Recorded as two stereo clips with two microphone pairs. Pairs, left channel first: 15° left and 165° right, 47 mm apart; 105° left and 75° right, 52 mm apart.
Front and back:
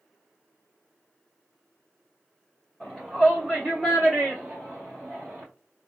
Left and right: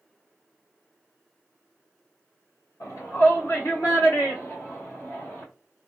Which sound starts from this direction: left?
A shout, at 2.8 s.